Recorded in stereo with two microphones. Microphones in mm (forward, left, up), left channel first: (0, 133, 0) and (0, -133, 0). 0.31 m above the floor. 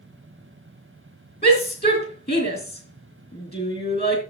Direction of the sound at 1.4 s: 35° left (ahead or behind).